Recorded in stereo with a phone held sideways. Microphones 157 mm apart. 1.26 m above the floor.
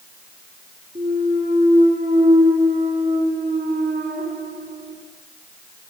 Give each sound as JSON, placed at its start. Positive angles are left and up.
{"t": 0.9, "sound": "a clunk", "side_deg": -75, "distance_m": 3.0}